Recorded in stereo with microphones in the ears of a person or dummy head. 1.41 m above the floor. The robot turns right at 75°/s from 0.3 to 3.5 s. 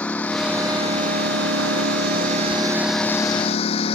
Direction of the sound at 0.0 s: 5° left (ahead or behind).